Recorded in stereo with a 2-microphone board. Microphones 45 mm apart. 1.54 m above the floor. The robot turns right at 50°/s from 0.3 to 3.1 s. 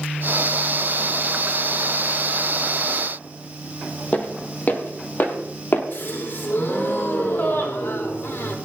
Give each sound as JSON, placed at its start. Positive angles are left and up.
{"t": 4.1, "sound": "footsteps", "side_deg": 35, "distance_m": 2.5}
{"t": 5.9, "sound": "a gasp", "side_deg": 55, "distance_m": 4.0}